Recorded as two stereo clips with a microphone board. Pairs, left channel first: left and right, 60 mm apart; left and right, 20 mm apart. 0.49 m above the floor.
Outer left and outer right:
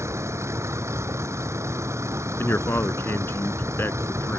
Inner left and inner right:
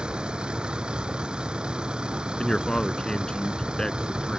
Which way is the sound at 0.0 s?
50° right (ahead or behind).